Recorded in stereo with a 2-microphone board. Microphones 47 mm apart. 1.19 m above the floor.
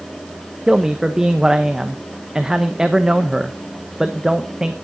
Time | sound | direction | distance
0.7 | a man speaking | 15° right (ahead or behind) | 0.7 m